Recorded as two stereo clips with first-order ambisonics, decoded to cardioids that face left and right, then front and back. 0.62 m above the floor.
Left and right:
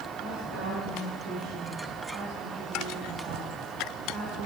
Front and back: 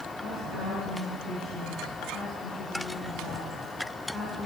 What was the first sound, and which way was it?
A woman speaking, 120° right.